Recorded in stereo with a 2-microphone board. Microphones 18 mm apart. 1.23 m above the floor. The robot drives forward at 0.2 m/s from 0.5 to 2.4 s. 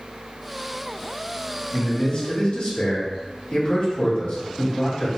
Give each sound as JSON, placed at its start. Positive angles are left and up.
{"t": 1.7, "sound": "a man speaking", "side_deg": 70, "distance_m": 1.8}